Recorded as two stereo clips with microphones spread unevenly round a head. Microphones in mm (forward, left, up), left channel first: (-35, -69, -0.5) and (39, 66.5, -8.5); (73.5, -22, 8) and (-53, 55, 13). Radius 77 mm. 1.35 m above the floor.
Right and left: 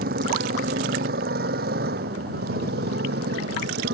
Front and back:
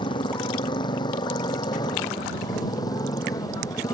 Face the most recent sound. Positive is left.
turn(degrees=35)